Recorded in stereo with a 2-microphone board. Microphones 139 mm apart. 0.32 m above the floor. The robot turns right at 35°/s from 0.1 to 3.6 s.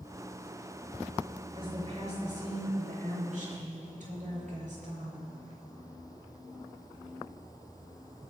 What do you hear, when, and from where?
1.5 s a woman speaking: 145° right, 5.5 m; by 5.3 s 70° right, 5.5 m